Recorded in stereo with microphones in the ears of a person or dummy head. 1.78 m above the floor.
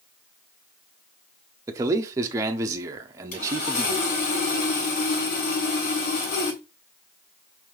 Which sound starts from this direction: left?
Sawing, at 3.3 s.